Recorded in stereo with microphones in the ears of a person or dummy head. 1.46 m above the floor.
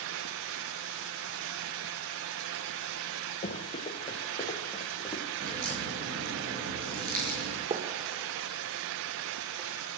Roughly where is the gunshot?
Right.